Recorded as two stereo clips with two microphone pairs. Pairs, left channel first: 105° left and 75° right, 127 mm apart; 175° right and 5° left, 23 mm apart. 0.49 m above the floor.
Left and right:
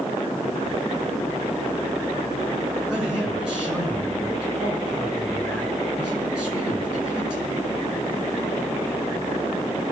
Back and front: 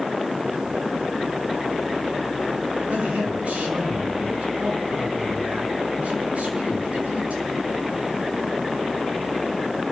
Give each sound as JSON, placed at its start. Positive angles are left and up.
{"t": 2.9, "sound": "a man speaking", "azimuth_deg": 10, "distance_m": 6.5}